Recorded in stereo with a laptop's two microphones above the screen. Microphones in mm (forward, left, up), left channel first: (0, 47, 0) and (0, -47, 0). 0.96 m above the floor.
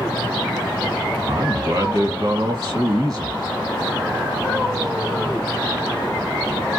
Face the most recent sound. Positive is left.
turn(degrees=-45)  # may be behind; listen again after turning